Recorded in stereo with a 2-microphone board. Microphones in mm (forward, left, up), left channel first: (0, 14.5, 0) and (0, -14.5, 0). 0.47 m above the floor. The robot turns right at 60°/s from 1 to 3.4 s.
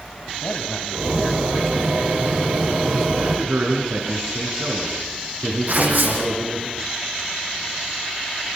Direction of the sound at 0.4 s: 120° left.